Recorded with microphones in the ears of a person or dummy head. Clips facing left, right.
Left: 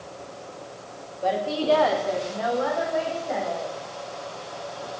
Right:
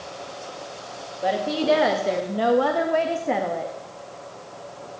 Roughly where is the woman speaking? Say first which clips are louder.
Right 2 dB; centre.